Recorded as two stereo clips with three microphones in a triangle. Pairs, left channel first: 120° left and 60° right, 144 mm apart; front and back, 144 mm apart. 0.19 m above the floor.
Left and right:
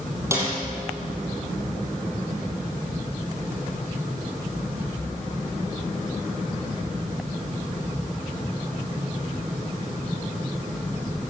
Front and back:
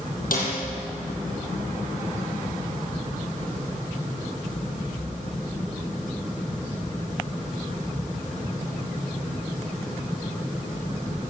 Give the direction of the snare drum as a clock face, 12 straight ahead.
12 o'clock.